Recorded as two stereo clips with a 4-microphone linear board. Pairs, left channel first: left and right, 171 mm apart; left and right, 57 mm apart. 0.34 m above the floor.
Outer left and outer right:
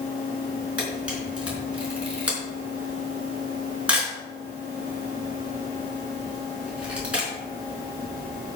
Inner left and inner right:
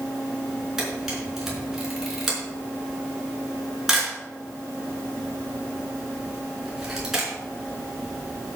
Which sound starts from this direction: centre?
A camera shutter, at 0.8 s.